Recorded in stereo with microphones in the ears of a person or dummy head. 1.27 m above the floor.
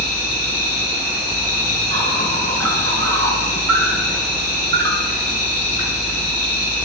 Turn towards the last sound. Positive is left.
turn(degrees=-65)  # may be behind; listen again after turning